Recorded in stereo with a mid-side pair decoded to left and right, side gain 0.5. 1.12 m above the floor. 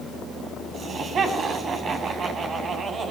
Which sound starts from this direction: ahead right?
Laughter, at 0.7 s.